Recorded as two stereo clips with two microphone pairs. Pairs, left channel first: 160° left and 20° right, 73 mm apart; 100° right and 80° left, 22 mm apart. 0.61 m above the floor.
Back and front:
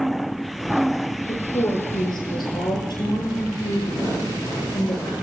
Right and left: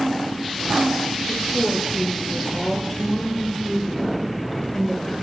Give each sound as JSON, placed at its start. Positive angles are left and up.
{"t": 1.3, "sound": "a woman speaking", "azimuth_deg": 170, "distance_m": 10.0}